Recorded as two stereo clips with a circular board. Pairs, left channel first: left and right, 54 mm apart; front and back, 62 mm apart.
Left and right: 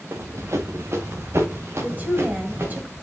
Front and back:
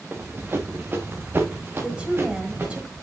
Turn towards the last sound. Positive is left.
turn(degrees=-115)